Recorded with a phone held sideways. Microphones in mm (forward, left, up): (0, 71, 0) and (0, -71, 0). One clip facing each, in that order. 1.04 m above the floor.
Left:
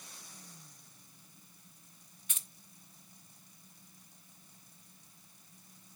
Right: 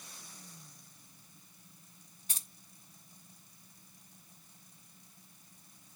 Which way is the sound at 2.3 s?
35° right (ahead or behind).